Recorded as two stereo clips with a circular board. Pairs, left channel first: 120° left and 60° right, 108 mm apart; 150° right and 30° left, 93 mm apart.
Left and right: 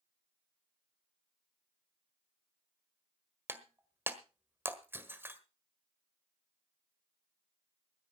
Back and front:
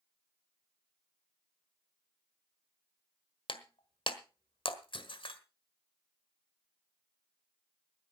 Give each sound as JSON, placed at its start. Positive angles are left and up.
{"t": 3.5, "sound": "breaking glass", "azimuth_deg": -130, "distance_m": 1.4}